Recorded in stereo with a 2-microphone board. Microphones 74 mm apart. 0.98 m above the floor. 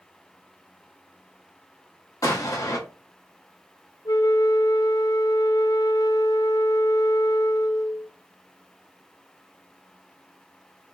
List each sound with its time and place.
2.2 s an explosion: 50° left (ahead or behind), 1.6 m
4.0 s a flute: 75° left (ahead or behind), 0.8 m